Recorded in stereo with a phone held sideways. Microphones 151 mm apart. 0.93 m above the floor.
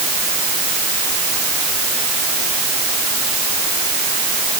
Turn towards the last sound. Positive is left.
No sound to turn to.